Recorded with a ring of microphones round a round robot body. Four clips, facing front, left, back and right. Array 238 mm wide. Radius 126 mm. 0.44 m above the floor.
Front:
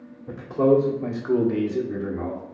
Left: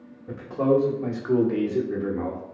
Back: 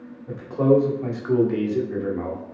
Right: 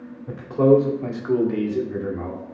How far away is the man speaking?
About 1.3 m.